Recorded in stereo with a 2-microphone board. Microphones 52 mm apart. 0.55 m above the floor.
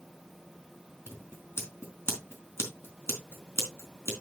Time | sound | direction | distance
1.1 | scissors | 55° left (ahead or behind) | 3.5 m